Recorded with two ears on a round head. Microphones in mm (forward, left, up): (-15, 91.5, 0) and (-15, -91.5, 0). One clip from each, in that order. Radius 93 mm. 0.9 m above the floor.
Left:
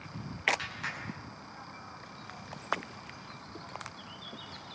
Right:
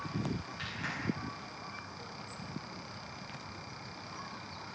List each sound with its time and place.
0.6 s a clap: 25° left (ahead or behind), 9.5 m